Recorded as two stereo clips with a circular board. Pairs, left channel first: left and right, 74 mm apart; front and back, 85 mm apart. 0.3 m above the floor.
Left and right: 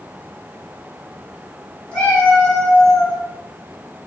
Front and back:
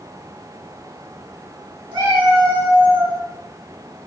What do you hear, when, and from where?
1.9 s a cat meowing: 160° left, 1.8 m; by 3.2 s 175° right, 2.5 m